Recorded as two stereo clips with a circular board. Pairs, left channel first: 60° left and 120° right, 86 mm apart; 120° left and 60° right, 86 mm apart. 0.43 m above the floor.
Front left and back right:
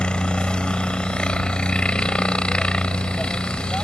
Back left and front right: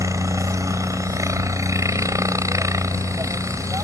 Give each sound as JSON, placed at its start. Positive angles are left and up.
{"t": 0.0, "sound": "a helicopter", "azimuth_deg": -15}